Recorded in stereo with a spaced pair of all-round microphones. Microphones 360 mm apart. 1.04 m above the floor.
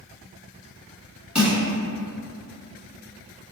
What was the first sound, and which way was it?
Crushing, 5° right (ahead or behind).